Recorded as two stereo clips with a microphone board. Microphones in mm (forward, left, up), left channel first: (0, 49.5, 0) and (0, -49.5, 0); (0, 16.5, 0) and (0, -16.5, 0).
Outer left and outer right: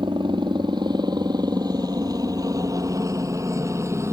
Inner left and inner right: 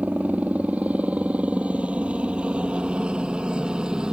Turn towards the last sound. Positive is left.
turn(degrees=-25)  # may be behind; listen again after turning